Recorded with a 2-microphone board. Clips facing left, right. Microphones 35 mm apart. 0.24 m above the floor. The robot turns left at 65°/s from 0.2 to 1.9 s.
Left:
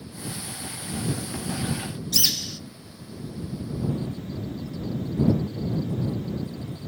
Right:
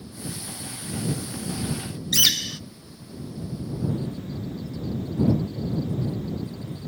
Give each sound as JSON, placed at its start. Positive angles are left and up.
{"t": 2.1, "sound": "a bird", "side_deg": -75}